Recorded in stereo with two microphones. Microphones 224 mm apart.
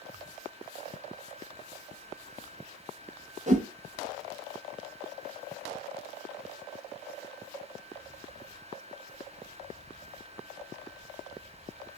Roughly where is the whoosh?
Right.